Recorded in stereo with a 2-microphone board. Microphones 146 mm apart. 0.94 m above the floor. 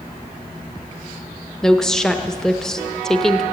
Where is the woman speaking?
5° left (ahead or behind), 0.7 m.